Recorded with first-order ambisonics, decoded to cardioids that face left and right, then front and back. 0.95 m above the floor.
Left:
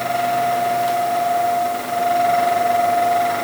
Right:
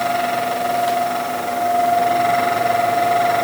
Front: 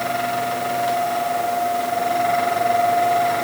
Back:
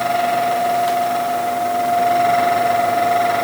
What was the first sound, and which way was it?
Only background noise.